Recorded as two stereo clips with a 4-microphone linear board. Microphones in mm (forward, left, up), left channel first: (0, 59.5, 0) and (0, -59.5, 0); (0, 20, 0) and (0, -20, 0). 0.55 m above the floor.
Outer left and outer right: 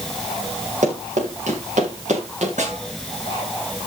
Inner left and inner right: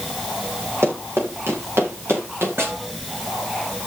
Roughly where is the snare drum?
Right.